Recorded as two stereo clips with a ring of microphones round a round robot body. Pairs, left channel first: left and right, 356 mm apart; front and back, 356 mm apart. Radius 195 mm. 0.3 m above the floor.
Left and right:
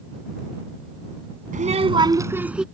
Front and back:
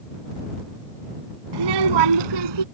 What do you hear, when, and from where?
1.5 s a child speaking: 160° right; by 2.6 s straight behind